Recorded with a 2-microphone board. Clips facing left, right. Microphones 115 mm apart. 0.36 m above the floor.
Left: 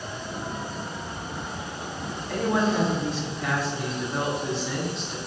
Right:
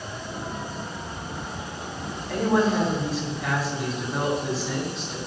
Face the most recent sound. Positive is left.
turn(degrees=0)  # may be behind; listen again after turning